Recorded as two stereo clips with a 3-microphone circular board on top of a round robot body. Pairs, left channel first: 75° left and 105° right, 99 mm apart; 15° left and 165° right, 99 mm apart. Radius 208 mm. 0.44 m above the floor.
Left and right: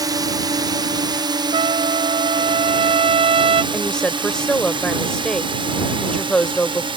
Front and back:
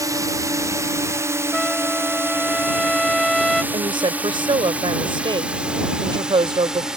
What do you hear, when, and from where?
0.0 s a drone: 130° right; by 7.0 s 80° right
1.5 s a trumpet: 75° right
3.7 s a woman speaking: 160° left